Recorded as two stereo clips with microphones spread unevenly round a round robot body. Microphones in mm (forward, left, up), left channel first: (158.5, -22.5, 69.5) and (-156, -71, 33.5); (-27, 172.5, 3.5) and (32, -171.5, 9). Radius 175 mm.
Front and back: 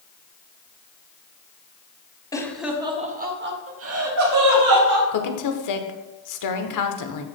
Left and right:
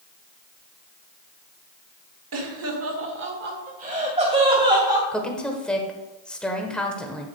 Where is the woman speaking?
15° left, 1.3 m.